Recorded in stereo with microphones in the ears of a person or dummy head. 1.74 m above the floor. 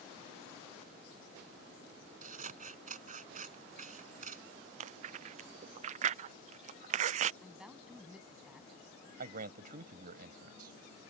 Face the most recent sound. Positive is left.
turn(degrees=-50)  # may be behind; listen again after turning